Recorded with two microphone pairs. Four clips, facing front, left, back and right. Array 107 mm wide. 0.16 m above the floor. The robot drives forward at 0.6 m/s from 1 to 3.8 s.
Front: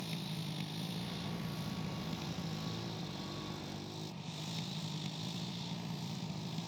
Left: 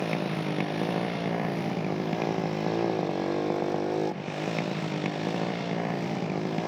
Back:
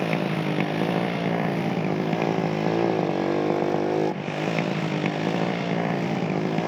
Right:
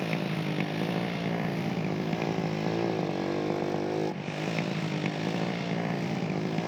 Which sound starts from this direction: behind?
A motorcycle, at 0.0 s.